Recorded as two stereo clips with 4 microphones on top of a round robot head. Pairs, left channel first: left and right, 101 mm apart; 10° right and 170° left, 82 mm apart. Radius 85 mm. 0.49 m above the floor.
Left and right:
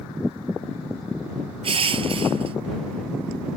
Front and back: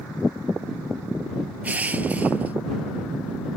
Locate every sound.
1.6 s crushing: 115° right